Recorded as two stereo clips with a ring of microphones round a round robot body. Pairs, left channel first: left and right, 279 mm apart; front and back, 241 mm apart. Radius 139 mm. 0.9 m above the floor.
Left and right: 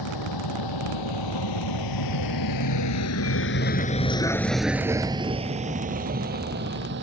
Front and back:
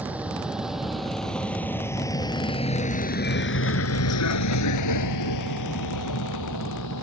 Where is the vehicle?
95° left; by 7.0 s 35° right.